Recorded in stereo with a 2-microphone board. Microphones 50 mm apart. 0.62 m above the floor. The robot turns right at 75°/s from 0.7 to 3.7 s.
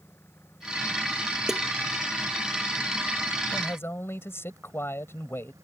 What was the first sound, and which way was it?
An engine running, 55° left.